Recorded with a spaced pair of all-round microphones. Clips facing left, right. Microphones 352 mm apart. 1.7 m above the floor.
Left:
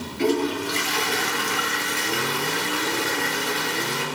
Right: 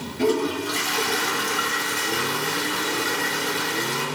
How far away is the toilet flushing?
About 3.5 m.